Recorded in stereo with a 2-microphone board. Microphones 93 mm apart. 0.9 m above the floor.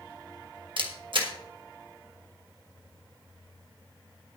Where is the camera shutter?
65° right (ahead or behind), 1.5 m.